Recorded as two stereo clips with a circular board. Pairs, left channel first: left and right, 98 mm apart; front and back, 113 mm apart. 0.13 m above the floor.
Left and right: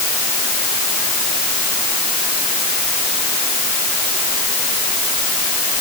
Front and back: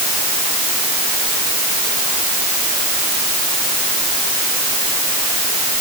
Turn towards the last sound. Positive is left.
No sound to turn to.